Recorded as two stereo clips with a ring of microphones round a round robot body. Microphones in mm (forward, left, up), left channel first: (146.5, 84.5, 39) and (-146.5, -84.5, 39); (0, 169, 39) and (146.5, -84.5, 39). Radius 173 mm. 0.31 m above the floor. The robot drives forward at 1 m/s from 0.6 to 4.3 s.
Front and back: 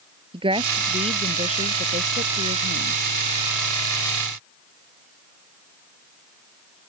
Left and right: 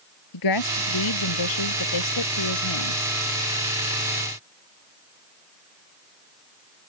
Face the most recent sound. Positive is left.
turn(degrees=150)